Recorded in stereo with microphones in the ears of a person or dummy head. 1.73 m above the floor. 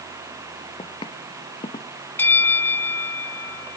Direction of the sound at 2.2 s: 15° left (ahead or behind).